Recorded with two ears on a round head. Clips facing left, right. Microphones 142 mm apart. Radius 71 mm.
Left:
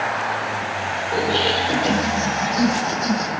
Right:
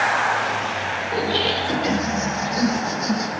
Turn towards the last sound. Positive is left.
turn(degrees=-20)  # may be behind; listen again after turning